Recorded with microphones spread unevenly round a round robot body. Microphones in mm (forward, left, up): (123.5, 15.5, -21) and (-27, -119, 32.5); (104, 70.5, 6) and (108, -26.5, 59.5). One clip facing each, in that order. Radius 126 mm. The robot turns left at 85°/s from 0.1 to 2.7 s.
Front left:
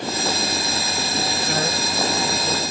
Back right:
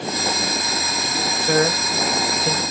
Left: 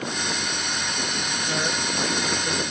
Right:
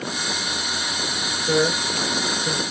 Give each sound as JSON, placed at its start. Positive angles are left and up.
{"t": 1.4, "sound": "a man speaking", "azimuth_deg": -95, "distance_m": 0.9}